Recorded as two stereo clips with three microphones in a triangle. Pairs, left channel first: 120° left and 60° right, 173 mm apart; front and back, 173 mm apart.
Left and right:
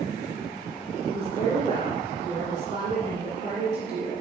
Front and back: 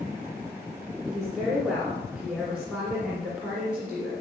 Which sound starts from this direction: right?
A woman speaking, at 1.1 s.